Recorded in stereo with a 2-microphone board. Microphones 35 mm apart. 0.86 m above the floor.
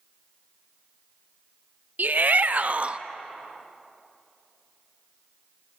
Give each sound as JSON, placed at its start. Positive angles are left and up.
{"t": 2.0, "sound": "a shout", "side_deg": -65, "distance_m": 1.3}